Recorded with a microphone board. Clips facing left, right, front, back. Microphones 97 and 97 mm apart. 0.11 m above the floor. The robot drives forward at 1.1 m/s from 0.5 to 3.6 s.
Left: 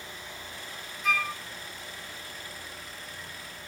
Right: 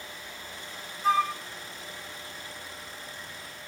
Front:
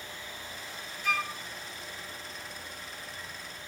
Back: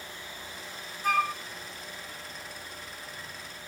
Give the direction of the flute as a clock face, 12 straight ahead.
5 o'clock.